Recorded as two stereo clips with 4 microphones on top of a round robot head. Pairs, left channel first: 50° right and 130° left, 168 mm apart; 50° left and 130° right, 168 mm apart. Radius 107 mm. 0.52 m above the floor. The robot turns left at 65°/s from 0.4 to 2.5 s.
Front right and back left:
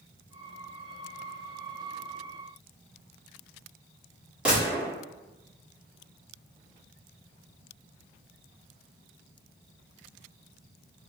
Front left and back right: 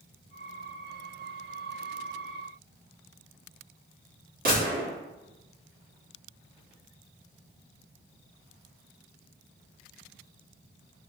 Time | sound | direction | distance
4.5 | a gunshot | 145° right | 1.8 m